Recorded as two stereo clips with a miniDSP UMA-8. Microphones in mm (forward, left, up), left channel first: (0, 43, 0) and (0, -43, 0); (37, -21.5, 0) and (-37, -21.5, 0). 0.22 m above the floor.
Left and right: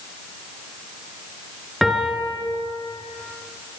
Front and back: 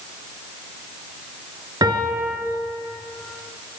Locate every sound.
1.8 s a piano: straight behind, 3.5 m